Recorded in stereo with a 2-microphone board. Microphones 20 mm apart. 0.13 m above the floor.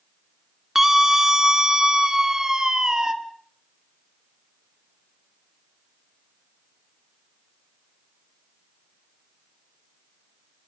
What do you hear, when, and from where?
0.8 s a scream: 20° right (ahead or behind), 1.6 m; by 3.1 s 40° right (ahead or behind), 3 m